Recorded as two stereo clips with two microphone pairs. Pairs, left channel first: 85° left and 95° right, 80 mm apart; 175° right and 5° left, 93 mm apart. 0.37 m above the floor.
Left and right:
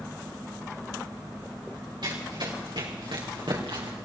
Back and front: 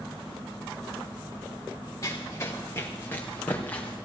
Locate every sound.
2.0 s running footsteps: 115° right, 4 m; by 4.0 s 100° right, 4.5 m